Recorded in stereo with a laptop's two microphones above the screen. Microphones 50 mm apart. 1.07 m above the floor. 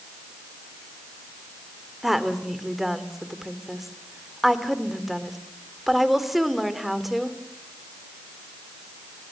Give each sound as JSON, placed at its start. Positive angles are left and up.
{"t": 2.0, "sound": "a woman speaking", "side_deg": -5, "distance_m": 3.0}